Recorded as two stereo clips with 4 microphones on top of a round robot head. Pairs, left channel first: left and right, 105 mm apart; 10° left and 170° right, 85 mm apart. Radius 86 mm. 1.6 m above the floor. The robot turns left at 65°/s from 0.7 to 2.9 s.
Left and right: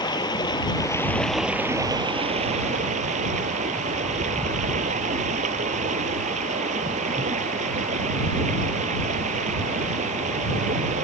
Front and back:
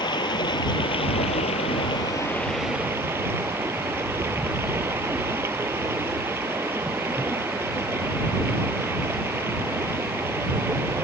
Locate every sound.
0.0 s running water: 40° left; by 11.0 s 100° right